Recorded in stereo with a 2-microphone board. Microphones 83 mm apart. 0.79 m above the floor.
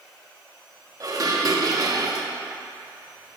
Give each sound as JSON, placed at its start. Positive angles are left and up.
{"t": 1.0, "sound": "dishes clattering", "side_deg": -45, "distance_m": 0.6}